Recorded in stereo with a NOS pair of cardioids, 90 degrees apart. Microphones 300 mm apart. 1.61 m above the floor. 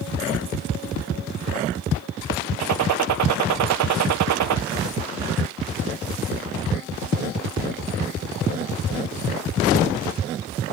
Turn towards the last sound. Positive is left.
turn(degrees=-65)